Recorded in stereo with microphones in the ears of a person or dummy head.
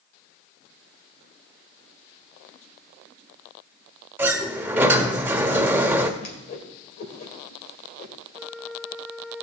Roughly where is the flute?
Centre.